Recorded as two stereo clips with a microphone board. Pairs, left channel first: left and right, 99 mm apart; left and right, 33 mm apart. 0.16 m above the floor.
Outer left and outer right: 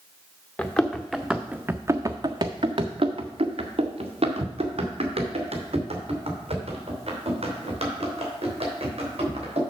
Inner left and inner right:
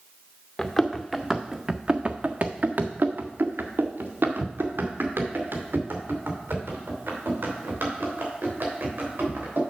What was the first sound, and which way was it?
Running footsteps, 20° left (ahead or behind).